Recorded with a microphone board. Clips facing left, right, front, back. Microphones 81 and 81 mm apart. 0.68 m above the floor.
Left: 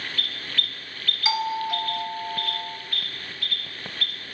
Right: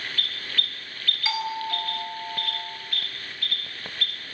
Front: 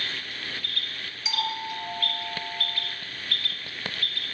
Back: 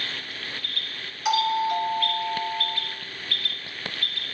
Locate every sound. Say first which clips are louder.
1.2 s a doorbell: left 3 dB, back 9 dB; 160° left, 4.5 m